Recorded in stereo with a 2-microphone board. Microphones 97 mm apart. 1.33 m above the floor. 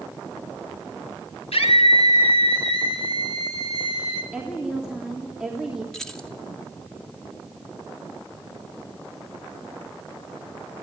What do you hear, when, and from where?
1.5 s a scream: 80° left, 5 m; by 4.2 s 70° left (ahead or behind), 6 m
4.3 s a woman speaking: 5° right (ahead or behind), 3 m
5.9 s keys jangling: 5° left (ahead or behind), 2.5 m